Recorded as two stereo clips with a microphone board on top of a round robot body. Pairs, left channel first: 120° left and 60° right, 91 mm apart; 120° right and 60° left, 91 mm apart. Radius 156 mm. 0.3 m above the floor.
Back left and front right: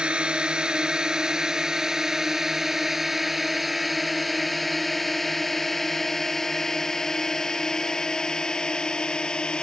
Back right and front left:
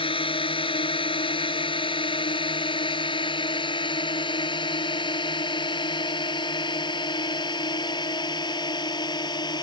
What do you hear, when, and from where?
0.0 s a drone: 140° right; by 9.6 s 160° right